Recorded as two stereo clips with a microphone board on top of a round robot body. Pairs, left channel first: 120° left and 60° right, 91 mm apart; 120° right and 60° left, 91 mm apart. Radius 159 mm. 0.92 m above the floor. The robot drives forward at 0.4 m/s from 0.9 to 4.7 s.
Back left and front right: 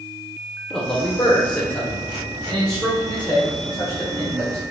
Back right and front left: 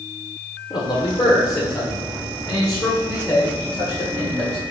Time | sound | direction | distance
0.7 | a man speaking | 160° right | 0.9 m